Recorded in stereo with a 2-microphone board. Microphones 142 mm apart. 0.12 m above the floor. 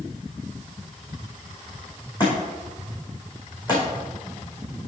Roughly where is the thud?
Left.